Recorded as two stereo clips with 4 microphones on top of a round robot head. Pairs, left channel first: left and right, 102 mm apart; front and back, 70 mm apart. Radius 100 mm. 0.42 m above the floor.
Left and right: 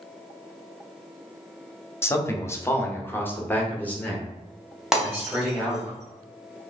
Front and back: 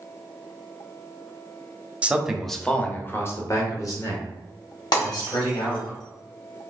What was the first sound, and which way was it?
A man speaking, 130° left.